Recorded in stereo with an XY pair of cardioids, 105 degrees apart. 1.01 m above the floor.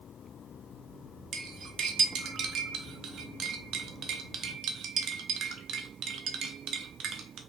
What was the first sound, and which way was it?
Cutlery clinking, 70° right.